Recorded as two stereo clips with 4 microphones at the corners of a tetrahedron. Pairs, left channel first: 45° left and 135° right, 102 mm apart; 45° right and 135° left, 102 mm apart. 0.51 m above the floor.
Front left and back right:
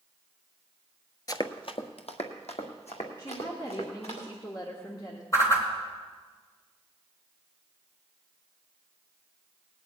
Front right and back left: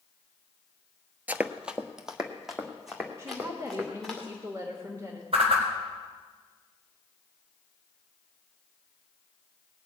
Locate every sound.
1.3 s running footsteps: 70° left, 0.5 m; by 4.2 s 45° left, 4 m
3.2 s a woman speaking: 85° left, 1.4 m
5.3 s a whoosh: 110° left, 3 m